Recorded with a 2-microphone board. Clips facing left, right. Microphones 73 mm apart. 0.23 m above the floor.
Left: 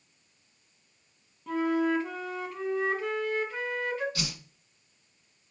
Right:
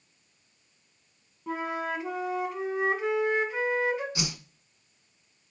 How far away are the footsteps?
No footsteps in this recording.